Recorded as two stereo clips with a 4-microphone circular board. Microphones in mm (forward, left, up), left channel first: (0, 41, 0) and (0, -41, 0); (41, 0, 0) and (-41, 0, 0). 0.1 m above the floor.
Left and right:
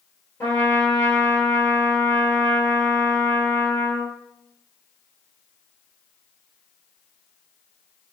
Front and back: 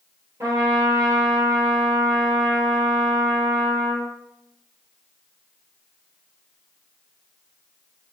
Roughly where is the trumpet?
Behind left.